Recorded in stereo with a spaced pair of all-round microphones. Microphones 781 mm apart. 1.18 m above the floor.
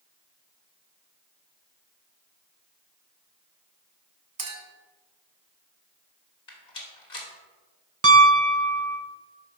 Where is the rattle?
65° left (ahead or behind), 1.6 m.